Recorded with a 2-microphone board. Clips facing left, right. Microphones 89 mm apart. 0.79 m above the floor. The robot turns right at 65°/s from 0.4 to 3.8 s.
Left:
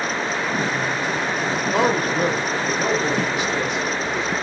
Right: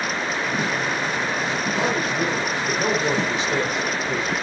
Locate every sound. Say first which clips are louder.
1.7 s a man speaking: left 6 dB; 105° left, 3 m; by 4.3 s 120° right, 3 m